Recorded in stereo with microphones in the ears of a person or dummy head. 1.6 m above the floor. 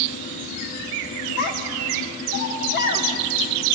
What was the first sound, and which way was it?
A child speaking, 50° left (ahead or behind).